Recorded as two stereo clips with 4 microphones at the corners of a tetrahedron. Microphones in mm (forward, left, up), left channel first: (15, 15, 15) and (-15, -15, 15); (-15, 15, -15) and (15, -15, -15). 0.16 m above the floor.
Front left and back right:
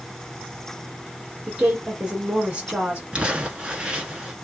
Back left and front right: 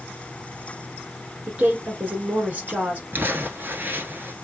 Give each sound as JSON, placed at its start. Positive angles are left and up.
{"t": 1.5, "sound": "a woman speaking", "azimuth_deg": -85, "distance_m": 1.9}
{"t": 3.1, "sound": "crumpling", "azimuth_deg": -70, "distance_m": 1.0}